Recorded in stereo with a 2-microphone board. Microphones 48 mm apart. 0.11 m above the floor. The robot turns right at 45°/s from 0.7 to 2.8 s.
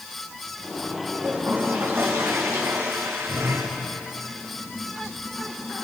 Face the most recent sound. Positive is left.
turn(degrees=-85)